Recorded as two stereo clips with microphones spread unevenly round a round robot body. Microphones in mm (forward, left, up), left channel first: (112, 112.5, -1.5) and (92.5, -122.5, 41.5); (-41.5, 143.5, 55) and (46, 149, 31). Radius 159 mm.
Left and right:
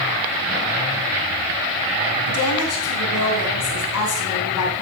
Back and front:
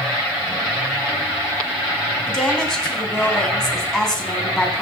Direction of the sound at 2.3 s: 100° left.